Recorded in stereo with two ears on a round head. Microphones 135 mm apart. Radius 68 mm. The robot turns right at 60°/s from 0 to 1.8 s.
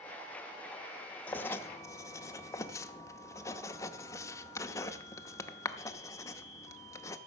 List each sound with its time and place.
1.3 s writing: 10° left (ahead or behind), 0.7 m; by 7.2 s 20° left (ahead or behind), 0.7 m